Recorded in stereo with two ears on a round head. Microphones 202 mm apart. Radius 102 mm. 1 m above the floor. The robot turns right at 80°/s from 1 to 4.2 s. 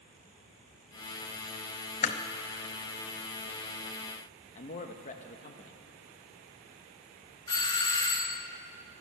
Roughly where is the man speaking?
Left.